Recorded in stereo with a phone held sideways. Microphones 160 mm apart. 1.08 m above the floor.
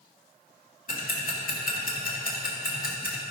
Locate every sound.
0.9 s ticking: 60° left (ahead or behind), 2.0 m